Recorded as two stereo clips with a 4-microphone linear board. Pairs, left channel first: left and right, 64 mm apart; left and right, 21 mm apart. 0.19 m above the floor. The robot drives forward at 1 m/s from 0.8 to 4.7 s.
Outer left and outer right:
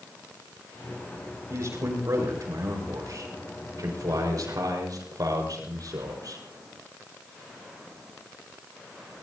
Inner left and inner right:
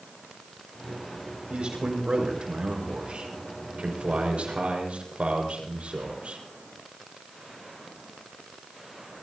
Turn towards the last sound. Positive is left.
turn(degrees=-75)  # may be behind; listen again after turning